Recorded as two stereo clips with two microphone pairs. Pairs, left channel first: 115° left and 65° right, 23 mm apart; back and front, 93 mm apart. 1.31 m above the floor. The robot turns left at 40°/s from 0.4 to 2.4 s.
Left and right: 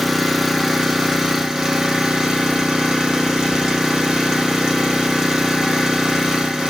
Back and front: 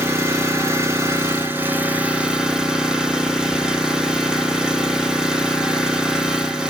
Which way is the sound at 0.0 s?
5° left.